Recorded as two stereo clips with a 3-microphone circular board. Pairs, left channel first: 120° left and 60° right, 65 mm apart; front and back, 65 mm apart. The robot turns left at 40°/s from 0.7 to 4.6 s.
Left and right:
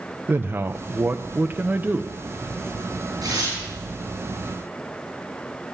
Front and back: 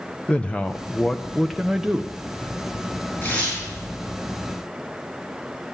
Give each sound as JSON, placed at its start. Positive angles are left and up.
{"t": 0.3, "sound": "a man speaking", "azimuth_deg": -60, "distance_m": 0.6}
{"t": 3.2, "sound": "tearing paper", "azimuth_deg": -55, "distance_m": 8.0}